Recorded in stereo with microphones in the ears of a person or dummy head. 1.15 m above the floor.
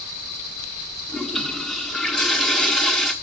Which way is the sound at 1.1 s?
5° left (ahead or behind).